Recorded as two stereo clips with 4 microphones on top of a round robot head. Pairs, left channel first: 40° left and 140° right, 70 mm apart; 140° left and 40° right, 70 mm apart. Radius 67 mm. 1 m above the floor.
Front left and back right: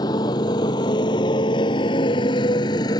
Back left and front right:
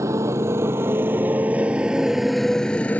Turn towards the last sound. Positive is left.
turn(degrees=70)